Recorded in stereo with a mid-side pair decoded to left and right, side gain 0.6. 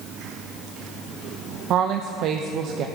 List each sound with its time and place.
1.7 s a woman speaking: 60° right, 0.8 m